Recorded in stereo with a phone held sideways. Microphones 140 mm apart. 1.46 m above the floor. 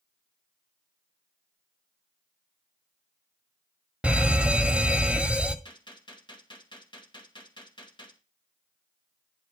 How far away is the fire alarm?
About 1.4 m.